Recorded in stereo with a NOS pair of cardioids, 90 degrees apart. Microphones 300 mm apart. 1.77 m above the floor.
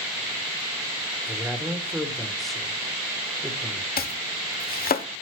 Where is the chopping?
30° left, 1.1 m.